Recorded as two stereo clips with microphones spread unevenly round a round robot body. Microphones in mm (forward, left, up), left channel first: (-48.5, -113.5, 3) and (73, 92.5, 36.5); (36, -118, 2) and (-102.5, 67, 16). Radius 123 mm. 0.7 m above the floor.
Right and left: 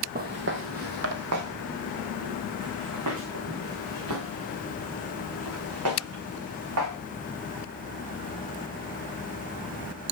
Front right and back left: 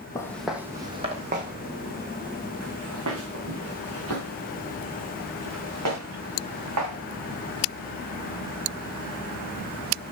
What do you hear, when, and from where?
0.1 s footsteps: 25° left, 1.0 m; by 7.0 s 95° left, 5.5 m